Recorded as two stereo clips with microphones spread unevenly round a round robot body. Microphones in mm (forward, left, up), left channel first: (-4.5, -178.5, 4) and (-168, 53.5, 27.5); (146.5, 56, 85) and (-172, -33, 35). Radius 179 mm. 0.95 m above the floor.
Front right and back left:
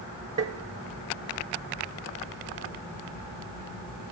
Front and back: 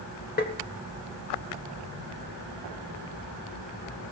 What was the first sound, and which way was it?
Tapping, 65° left.